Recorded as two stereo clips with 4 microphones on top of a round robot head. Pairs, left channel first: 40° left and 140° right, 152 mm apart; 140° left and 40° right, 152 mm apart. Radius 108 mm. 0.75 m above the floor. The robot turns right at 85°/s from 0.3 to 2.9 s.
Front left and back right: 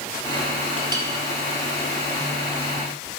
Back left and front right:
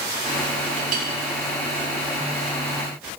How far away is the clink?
About 3.5 m.